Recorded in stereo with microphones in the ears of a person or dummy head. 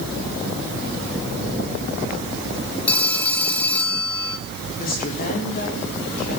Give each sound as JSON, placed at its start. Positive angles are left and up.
{"t": 2.9, "sound": "a phone ringing", "side_deg": 0, "distance_m": 1.1}
{"t": 4.8, "sound": "a woman speaking", "side_deg": 55, "distance_m": 4.0}